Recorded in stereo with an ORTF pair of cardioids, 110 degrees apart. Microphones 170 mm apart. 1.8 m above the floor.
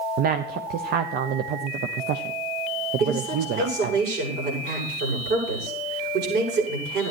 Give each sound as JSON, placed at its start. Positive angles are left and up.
{"t": 0.2, "sound": "a woman speaking", "azimuth_deg": -65, "distance_m": 1.1}
{"t": 3.0, "sound": "a man speaking", "azimuth_deg": -65, "distance_m": 9.0}